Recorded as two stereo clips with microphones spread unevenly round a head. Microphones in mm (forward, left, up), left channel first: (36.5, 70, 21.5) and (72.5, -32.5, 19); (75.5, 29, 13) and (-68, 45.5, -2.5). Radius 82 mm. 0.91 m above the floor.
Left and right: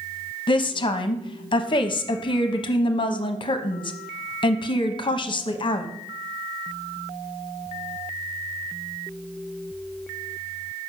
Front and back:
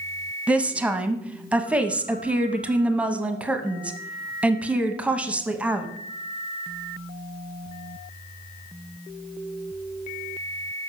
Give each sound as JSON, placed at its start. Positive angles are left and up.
{"t": 0.5, "sound": "a woman speaking", "azimuth_deg": 100, "distance_m": 0.9}